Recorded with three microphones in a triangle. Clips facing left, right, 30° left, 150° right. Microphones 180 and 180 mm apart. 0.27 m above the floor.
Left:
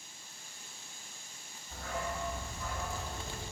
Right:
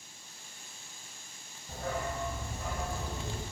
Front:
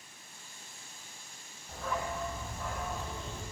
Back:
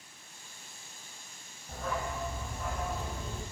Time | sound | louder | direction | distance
1.7 | a dog barking | right 3 dB, even | 65° right | 4 m